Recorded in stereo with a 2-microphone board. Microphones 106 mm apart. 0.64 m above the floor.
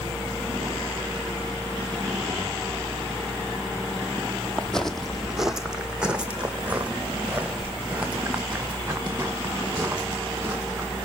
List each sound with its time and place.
4.6 s footsteps: 10° left (ahead or behind), 0.8 m; by 11.1 s 15° right (ahead or behind), 4.5 m